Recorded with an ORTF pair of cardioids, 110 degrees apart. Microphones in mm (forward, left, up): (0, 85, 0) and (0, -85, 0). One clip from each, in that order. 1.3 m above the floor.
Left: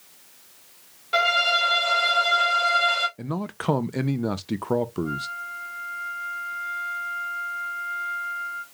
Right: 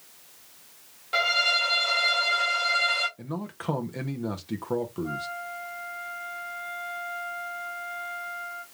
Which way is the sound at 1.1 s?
15° left.